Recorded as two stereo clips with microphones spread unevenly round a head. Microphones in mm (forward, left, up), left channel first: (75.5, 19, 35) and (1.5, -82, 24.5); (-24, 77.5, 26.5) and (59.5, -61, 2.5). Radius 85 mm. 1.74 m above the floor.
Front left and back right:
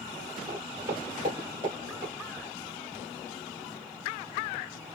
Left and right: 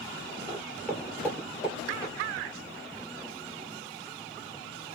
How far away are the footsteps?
About 1.8 m.